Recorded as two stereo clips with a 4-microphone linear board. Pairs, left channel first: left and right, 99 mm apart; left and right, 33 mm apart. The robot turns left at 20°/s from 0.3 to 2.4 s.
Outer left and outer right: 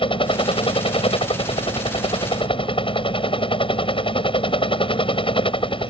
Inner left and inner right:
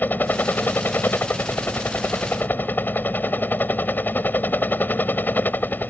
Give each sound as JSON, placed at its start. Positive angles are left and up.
{"t": 0.0, "sound": "a helicopter", "azimuth_deg": 110}